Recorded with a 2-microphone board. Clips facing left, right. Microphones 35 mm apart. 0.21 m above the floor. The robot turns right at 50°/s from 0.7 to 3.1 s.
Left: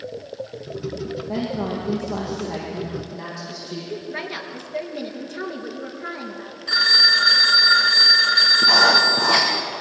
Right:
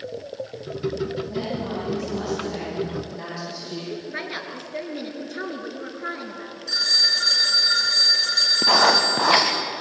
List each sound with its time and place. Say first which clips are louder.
1.3 s a woman speaking: left 2 dB; 100° left, 8.5 m; by 3.8 s 170° right, 8.5 m
3.9 s a woman speaking: left 2 dB; 10° right (ahead or behind), 3.5 m
6.7 s a phone ringing: left 6 dB; 40° left (ahead or behind), 1.4 m
8.6 s writing: even; 35° right (ahead or behind), 4.5 m